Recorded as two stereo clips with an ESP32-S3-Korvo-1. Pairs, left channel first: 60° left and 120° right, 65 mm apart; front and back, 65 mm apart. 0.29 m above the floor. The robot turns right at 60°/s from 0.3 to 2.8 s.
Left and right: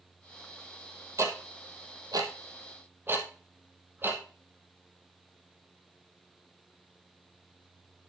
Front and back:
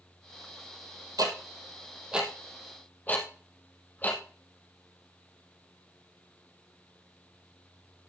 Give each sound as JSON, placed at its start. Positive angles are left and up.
{"t": 1.2, "sound": "ticking", "azimuth_deg": -160, "distance_m": 2.0}